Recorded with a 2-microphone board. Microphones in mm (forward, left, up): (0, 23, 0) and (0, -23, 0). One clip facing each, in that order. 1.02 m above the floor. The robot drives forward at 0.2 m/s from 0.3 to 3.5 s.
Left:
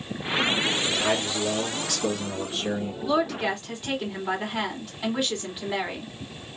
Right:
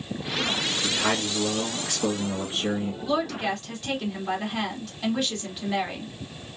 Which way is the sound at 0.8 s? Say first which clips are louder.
Left 1 dB; 30° right (ahead or behind).